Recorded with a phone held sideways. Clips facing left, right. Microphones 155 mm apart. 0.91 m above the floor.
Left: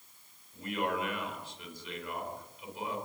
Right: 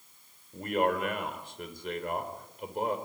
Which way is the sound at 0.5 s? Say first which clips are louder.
Right 6 dB; 55° right (ahead or behind).